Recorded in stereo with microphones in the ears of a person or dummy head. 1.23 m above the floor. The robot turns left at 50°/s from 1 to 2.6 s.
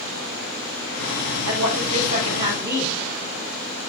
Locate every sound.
1.5 s a woman speaking: 105° right, 3.5 m; by 3.0 s 165° right, 3.5 m